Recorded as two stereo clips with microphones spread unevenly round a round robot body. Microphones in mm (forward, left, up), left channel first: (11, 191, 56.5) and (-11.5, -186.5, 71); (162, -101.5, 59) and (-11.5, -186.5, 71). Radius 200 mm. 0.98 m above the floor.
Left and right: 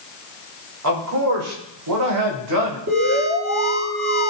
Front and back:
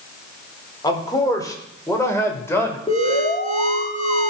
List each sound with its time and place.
0.8 s a man speaking: 45° right, 4 m; by 2.8 s 55° right, 5 m
2.9 s an alarm: 30° right, 4 m